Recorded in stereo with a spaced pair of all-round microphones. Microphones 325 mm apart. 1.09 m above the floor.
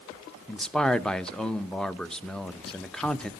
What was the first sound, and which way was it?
A man speaking, centre (ahead or behind).